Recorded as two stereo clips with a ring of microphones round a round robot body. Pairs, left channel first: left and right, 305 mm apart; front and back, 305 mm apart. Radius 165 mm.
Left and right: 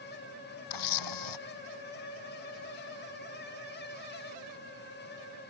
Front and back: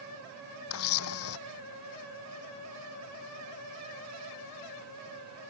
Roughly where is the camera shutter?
Ahead left.